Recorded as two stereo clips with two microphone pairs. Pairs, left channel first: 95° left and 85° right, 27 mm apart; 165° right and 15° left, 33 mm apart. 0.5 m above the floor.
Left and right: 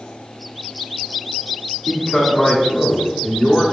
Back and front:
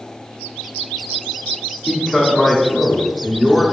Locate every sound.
1.9 s a man speaking: 120° left, 0.8 m